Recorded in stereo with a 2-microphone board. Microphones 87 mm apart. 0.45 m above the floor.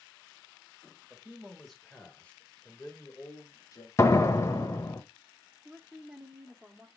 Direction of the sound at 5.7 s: 15° right (ahead or behind).